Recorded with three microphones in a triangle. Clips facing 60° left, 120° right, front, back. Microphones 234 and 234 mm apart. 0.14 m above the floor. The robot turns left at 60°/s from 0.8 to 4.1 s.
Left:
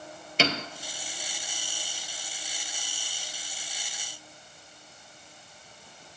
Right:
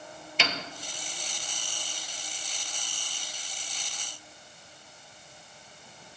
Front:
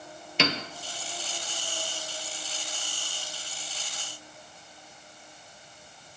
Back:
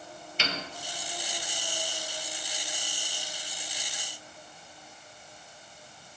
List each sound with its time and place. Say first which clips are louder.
0.4 s a piano: left 6 dB, front 8 dB; 10° left, 0.6 m